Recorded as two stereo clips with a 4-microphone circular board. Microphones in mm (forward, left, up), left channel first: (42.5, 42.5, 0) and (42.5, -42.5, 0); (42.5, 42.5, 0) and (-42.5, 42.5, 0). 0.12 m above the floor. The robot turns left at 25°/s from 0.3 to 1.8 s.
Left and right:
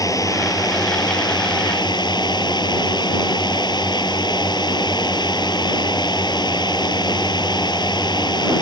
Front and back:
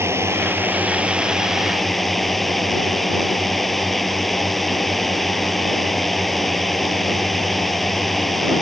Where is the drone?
125° left; by 8.6 s 90° left.